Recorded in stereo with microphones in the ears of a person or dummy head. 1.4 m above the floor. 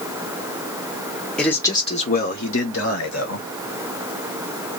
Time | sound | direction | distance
1.4 | a man speaking | 10° left (ahead or behind) | 0.8 m